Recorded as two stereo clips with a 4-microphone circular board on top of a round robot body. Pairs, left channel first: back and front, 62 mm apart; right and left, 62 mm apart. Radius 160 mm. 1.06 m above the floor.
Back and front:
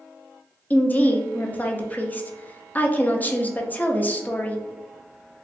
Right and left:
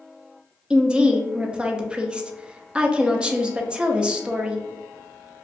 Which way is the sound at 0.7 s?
150° left.